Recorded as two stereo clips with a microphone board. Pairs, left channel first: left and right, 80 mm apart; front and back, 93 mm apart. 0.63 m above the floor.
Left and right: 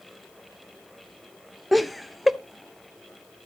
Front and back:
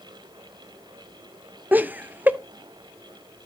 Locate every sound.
1.7 s laughter: straight behind, 0.5 m